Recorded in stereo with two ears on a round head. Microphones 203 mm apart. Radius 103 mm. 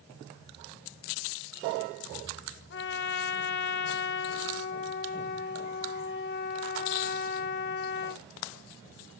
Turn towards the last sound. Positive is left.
turn(degrees=50)  # may be behind; listen again after turning